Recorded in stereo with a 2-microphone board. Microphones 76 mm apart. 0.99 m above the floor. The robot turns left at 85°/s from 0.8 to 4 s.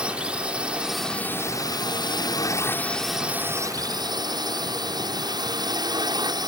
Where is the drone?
165° right; by 6.5 s 75° right.